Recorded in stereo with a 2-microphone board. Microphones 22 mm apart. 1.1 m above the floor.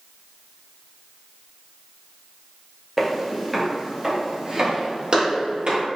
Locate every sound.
3.0 s footsteps: centre (ahead or behind), 1.4 m; by 5.8 s 55° right (ahead or behind), 1.8 m